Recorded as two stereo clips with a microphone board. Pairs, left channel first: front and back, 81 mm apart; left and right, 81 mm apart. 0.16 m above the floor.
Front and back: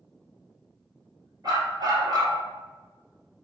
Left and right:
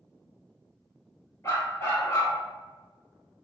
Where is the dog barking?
145° left, 1.5 m.